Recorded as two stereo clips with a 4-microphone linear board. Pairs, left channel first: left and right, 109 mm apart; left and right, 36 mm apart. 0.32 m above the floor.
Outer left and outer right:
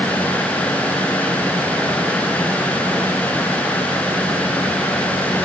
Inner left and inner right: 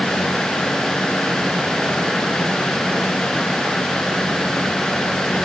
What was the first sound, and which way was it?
Only background noise.